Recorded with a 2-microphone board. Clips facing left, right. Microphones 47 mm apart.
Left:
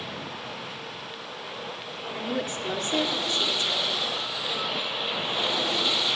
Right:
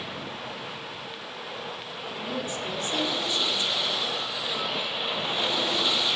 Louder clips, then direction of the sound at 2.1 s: Left 2 dB; 45° left (ahead or behind).